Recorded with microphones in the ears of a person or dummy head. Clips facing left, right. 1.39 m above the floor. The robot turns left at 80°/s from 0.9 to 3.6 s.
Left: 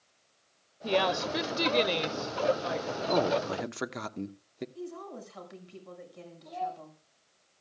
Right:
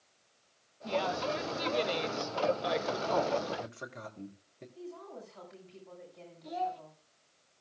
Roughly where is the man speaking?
Behind left.